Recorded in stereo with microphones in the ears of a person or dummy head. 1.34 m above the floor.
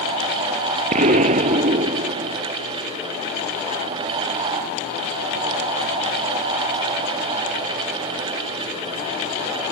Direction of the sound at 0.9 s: 40° right (ahead or behind).